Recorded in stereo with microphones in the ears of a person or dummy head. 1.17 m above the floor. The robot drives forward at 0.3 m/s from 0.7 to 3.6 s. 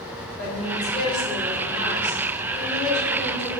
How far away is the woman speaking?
About 3.5 m.